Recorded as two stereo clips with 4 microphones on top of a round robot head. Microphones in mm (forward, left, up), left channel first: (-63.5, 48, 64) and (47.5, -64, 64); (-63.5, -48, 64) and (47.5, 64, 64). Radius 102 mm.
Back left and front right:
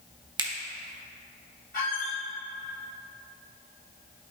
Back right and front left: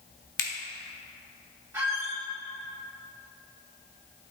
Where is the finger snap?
105° right, 0.8 m.